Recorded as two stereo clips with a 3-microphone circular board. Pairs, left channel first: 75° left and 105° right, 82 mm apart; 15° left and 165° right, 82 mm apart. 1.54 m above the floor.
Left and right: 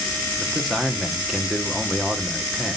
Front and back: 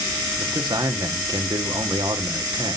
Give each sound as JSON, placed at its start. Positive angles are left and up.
{"t": 0.4, "sound": "a man speaking", "azimuth_deg": 165, "distance_m": 1.0}